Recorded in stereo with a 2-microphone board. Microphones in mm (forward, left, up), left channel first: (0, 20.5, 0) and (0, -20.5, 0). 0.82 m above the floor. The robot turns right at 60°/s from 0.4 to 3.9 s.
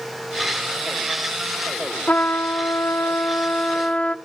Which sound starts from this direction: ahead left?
A trumpet, at 2.1 s.